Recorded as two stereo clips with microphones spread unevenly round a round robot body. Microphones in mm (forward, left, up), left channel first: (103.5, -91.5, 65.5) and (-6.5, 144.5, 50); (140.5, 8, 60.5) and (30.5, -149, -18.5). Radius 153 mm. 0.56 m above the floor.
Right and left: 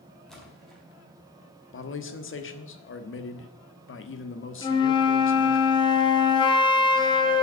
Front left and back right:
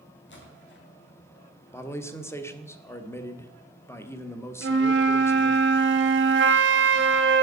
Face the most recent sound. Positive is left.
turn(degrees=-140)